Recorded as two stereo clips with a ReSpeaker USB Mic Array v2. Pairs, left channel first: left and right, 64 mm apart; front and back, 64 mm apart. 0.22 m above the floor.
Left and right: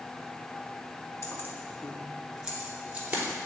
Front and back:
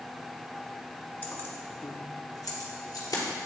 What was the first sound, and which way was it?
Keys jangling, 60° left.